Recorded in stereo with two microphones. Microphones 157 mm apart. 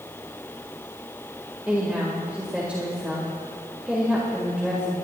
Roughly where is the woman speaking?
Centre.